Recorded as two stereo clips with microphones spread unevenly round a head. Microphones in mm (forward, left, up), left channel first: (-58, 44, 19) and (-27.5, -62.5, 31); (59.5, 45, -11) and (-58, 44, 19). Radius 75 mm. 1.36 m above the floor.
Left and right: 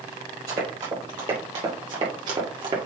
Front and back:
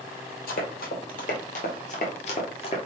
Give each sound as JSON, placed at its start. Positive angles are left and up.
{"t": 0.5, "sound": "running footsteps", "azimuth_deg": -15, "distance_m": 2.5}